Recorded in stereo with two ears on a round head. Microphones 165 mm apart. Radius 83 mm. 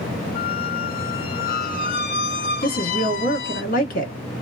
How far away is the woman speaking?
About 1.1 m.